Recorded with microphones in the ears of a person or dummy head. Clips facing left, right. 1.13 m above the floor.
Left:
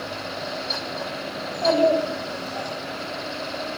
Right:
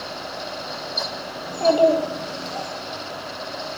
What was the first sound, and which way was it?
A child speaking, 75° right (ahead or behind).